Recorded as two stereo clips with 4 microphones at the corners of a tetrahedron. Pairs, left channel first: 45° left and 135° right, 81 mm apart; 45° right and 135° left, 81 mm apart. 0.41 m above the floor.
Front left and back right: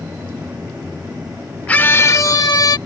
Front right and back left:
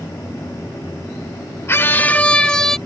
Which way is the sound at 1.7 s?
15° right.